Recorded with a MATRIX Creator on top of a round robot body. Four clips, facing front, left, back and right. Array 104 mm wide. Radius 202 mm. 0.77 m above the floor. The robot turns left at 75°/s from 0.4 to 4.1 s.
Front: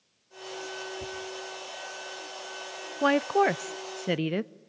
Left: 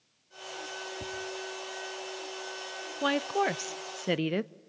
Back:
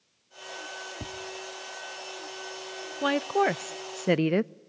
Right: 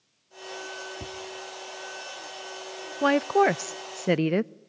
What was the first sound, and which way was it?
Tapping, 170° right.